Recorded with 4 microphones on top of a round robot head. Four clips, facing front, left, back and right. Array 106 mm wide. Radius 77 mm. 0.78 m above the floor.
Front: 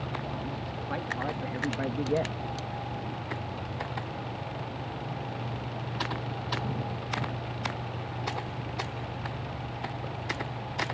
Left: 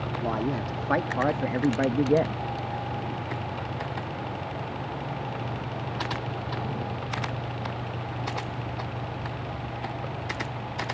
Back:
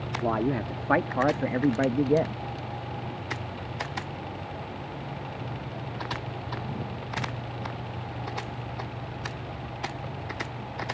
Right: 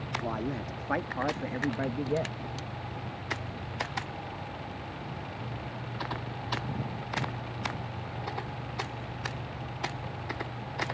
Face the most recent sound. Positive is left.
turn(degrees=110)